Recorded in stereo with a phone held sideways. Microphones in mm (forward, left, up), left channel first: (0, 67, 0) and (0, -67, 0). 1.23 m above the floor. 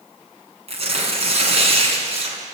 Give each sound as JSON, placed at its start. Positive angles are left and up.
{"t": 0.7, "sound": "tearing paper", "side_deg": -50, "distance_m": 4.0}